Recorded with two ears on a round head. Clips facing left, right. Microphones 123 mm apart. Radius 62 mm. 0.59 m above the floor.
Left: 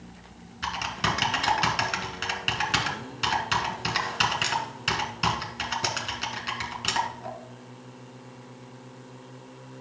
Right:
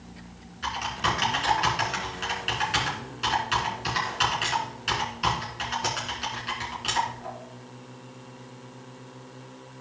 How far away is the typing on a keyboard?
About 2 m.